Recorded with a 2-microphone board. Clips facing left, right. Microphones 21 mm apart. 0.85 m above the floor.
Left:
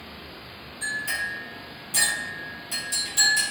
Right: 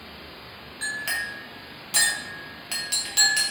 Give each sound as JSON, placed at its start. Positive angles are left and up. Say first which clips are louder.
{"t": 0.8, "sound": "a clink", "louder": "even", "side_deg": -50, "distance_m": 0.8}